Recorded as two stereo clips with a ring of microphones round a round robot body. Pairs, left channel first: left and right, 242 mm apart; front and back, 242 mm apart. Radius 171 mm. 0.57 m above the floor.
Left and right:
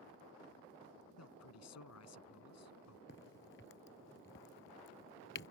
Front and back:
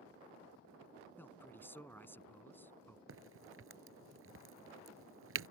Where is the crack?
150° left.